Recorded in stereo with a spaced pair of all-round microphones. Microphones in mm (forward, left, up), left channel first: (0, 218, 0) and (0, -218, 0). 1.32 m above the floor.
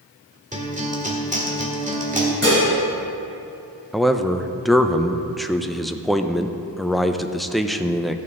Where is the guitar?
15° right (ahead or behind), 1.6 m.